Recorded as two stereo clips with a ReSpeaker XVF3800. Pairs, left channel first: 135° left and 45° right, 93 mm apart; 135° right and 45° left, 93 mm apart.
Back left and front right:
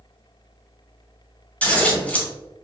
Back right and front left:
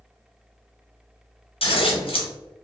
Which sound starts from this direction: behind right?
Scissors, at 1.6 s.